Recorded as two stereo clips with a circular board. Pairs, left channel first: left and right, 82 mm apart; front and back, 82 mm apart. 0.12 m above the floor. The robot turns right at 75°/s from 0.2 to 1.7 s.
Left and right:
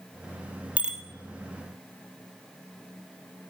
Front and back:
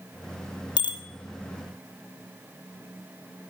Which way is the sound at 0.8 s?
20° right.